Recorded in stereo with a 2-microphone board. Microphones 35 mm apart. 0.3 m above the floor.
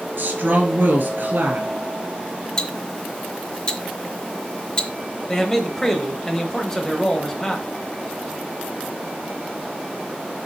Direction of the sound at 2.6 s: 25° left (ahead or behind).